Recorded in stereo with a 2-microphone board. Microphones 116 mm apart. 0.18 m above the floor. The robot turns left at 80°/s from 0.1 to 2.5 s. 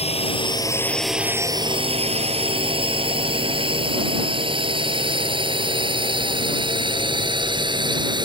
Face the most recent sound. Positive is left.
turn(degrees=-45)  # may be behind; listen again after turning